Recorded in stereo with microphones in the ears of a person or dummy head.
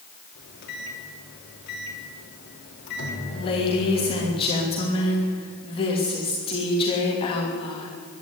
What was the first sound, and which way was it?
A microwave, 60° left (ahead or behind).